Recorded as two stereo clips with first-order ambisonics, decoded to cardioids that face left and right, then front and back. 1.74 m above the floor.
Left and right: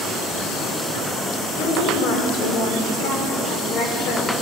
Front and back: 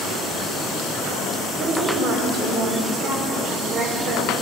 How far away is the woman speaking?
About 5.5 m.